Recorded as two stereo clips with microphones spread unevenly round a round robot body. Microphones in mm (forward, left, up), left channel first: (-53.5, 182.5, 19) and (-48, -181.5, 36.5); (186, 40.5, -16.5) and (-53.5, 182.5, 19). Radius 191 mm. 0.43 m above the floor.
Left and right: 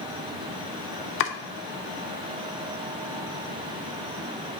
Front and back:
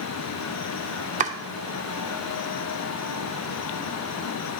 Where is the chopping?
90° left, 0.5 m.